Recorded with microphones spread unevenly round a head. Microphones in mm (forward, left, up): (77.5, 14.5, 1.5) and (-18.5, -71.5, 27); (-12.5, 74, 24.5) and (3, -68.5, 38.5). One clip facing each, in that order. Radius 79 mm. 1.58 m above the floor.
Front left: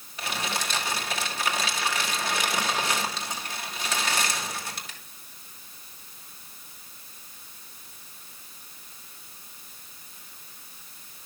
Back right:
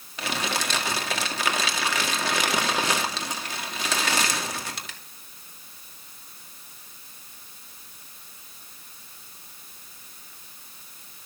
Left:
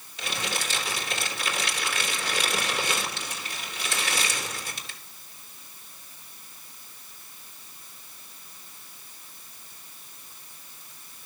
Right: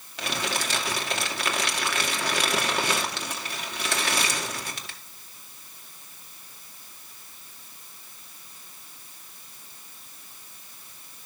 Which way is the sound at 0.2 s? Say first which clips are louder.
Back right 3 dB, right 3 dB; 120° right.